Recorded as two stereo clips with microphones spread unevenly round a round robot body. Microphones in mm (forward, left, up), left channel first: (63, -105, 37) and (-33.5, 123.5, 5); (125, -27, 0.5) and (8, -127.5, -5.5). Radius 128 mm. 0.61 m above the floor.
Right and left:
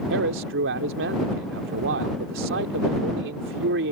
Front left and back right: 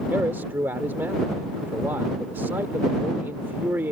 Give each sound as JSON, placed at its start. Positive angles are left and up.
{"t": 0.1, "sound": "a man speaking", "azimuth_deg": 145}